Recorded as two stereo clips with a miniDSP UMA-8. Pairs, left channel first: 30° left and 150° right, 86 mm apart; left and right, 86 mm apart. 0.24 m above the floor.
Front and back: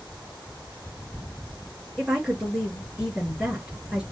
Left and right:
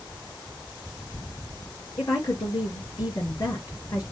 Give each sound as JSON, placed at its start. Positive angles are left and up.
{"t": 2.0, "sound": "a woman speaking", "azimuth_deg": 130, "distance_m": 4.5}